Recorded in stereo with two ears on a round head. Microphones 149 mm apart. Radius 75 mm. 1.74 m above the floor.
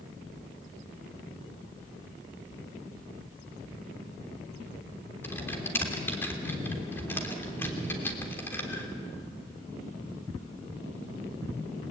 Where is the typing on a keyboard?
15° left (ahead or behind), 3 m.